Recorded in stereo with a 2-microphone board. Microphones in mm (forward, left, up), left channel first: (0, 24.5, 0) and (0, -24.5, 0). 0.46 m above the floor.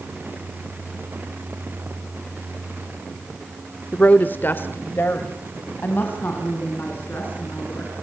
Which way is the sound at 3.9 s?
30° left (ahead or behind).